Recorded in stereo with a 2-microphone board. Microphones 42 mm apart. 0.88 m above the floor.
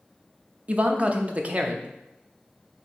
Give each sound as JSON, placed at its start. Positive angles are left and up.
{"t": 0.7, "sound": "a man speaking", "side_deg": -30, "distance_m": 0.5}